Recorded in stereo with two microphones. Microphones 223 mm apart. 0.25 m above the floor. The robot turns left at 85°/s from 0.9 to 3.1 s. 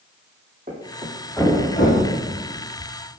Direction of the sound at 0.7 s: 40° right (ahead or behind).